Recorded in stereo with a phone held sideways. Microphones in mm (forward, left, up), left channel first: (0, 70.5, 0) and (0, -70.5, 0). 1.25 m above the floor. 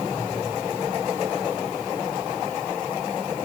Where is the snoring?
No snoring in this recording.